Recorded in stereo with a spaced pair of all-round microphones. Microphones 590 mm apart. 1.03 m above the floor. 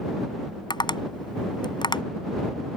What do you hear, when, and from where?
0.7 s tapping: 5° left (ahead or behind)